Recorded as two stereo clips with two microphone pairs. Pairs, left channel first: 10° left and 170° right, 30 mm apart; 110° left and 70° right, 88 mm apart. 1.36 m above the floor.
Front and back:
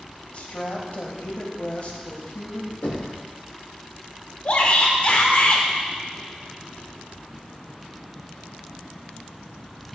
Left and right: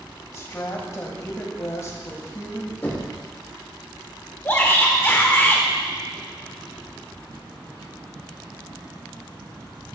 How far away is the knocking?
About 1.9 m.